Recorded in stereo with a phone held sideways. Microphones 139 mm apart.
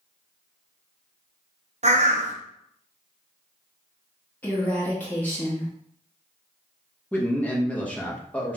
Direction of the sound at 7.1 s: 10° left (ahead or behind).